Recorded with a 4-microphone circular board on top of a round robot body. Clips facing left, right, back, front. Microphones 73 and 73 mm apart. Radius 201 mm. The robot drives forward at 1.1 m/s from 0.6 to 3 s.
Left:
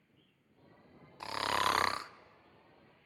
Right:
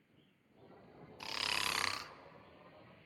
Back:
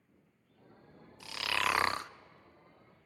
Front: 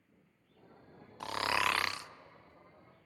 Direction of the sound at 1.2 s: 30° left.